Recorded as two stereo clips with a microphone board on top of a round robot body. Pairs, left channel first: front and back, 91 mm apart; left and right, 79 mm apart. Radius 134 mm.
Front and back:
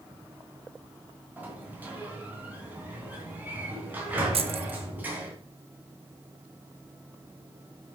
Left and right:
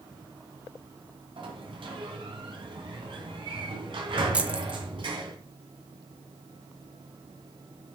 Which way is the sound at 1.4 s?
105° right.